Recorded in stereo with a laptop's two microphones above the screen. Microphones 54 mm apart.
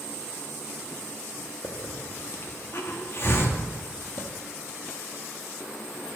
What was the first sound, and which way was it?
A hiss, 45° left (ahead or behind).